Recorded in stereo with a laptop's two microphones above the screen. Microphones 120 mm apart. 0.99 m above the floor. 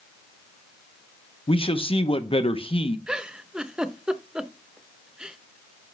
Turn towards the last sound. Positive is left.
turn(degrees=-10)  # may be behind; listen again after turning